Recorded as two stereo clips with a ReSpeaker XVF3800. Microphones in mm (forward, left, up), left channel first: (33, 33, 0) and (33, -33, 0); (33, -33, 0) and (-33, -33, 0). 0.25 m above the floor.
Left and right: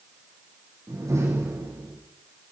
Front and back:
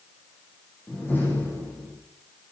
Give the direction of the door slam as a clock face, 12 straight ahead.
2 o'clock.